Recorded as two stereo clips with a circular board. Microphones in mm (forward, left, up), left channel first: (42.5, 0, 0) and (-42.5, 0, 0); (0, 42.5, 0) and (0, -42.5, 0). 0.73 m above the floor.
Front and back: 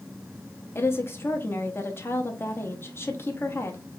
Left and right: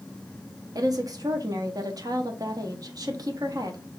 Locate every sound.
0.8 s a woman speaking: 55° right, 0.8 m